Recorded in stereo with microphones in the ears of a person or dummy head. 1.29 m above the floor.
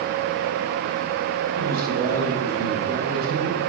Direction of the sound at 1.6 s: 60° right (ahead or behind).